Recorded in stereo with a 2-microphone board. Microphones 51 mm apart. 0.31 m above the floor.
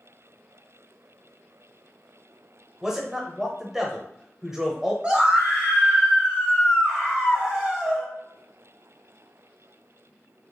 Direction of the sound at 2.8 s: 10° right (ahead or behind).